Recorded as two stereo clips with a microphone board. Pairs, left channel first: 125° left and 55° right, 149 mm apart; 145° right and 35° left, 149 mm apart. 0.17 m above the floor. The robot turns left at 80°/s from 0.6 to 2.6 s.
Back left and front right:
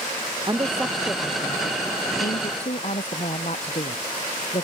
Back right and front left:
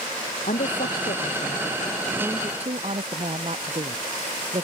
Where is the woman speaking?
120° right; by 4.6 s 80° left.